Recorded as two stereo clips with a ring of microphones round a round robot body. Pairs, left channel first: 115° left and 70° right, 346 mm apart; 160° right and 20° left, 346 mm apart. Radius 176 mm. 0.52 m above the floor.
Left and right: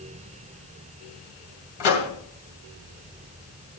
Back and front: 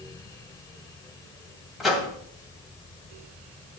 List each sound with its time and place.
1.8 s a microwave: 110° left, 2.5 m